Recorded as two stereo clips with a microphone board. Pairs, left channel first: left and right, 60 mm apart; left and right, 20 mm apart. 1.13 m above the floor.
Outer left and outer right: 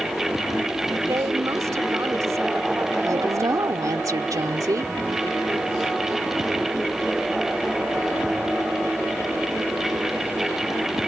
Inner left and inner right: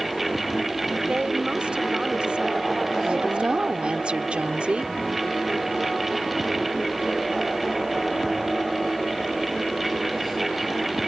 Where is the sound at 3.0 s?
80° right.